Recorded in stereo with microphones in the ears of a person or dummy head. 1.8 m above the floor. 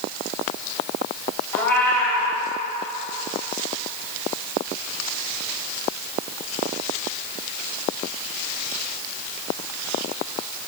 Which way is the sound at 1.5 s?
15° left (ahead or behind).